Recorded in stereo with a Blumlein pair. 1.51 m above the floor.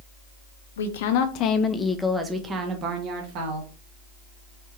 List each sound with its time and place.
0.8 s a woman speaking: 65° left, 0.8 m; by 3.7 s 40° right, 1.4 m